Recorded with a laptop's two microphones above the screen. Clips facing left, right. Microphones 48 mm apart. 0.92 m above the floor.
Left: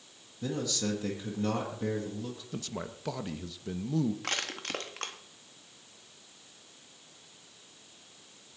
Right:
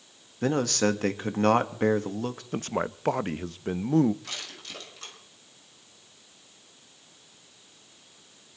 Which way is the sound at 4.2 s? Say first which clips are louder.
Left 5 dB; 55° left (ahead or behind).